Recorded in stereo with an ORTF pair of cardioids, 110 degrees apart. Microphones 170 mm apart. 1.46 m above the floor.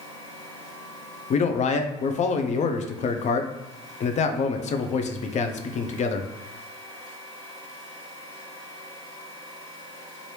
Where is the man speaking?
45° left, 0.5 m.